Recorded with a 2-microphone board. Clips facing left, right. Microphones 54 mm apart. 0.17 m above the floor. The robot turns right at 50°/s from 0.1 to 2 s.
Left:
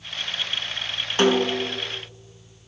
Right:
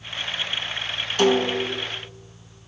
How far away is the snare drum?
About 1.0 m.